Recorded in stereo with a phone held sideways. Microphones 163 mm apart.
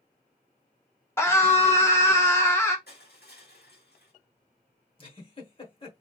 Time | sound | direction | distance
1.2 | a scream | 15° left (ahead or behind) | 1.3 m
2.9 | crushing | 80° left | 1.8 m
5.0 | a giggle | 35° left (ahead or behind) | 1.2 m